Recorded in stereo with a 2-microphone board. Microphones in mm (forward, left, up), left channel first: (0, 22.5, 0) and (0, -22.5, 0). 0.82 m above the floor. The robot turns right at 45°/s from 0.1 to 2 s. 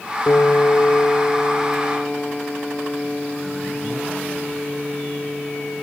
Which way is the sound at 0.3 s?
90° left.